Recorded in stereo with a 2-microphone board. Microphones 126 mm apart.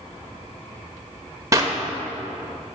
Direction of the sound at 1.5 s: 25° right (ahead or behind).